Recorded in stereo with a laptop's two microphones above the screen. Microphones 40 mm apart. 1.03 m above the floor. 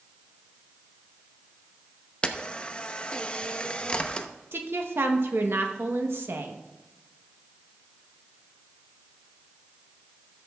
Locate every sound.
2.2 s a camera shutter: 25° left (ahead or behind), 0.7 m
4.5 s a woman speaking: 70° right (ahead or behind), 1.0 m